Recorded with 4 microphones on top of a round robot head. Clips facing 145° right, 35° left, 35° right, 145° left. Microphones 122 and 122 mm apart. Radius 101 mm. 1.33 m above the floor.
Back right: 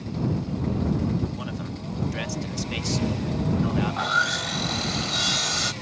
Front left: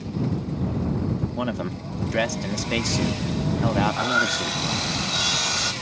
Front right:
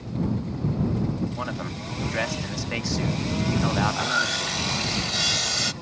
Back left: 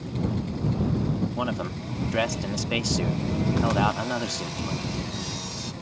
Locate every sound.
1.4 s a man speaking: 70° left
3.9 s sawing: 55° right